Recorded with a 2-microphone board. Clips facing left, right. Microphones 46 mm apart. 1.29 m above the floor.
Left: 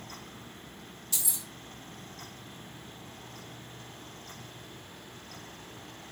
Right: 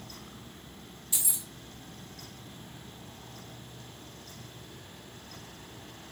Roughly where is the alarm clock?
No alarm clock in this recording.